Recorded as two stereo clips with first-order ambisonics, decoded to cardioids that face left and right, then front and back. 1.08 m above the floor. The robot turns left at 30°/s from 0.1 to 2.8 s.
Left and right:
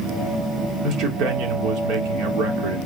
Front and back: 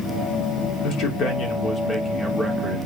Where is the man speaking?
40° right, 2.5 m; by 2.8 s 100° right, 2.5 m.